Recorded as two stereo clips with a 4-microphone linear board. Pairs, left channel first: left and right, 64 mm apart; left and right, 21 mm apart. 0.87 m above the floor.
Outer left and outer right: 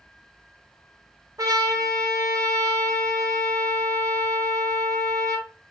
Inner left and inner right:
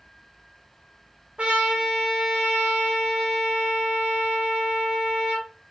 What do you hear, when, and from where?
1.4 s a trumpet: 70° right (ahead or behind), 2.5 m